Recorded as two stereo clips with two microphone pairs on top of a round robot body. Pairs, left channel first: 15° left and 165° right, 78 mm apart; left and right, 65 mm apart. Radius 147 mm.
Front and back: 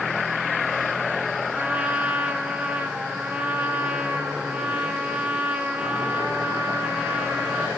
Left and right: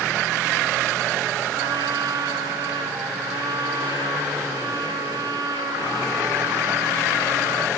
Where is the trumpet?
90° right, 2.5 m.